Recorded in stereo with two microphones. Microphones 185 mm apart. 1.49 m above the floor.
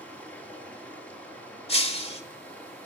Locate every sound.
0.0 s running water: 10° left (ahead or behind), 2.5 m
1.7 s breaking glass: 35° left (ahead or behind), 1.5 m